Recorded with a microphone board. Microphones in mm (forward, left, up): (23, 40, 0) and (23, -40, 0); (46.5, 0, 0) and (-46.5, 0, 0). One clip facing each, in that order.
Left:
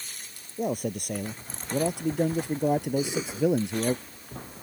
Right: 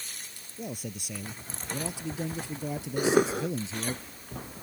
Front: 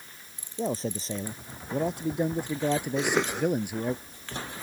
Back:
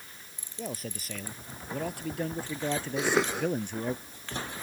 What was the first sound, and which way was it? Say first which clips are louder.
A man speaking: left 9 dB, front 8 dB; 55° left.